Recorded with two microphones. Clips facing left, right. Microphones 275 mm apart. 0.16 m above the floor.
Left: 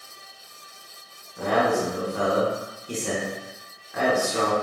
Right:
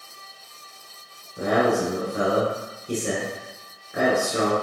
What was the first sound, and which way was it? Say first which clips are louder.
A man speaking: right 2 dB; 25° right (ahead or behind).